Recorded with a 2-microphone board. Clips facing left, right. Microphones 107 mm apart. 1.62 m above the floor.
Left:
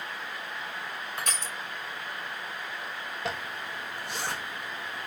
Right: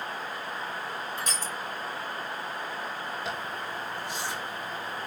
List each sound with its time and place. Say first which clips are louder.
1.2 s crushing: right 1 dB; 65° left (ahead or behind), 2.5 m
3.2 s a zipper: right 1 dB; 65° left (ahead or behind), 2.5 m